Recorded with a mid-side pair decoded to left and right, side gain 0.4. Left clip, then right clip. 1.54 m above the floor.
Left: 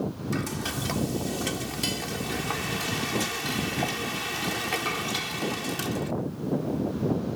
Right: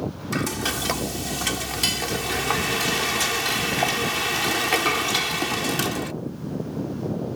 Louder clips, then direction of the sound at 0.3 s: Right 7 dB; 55° right.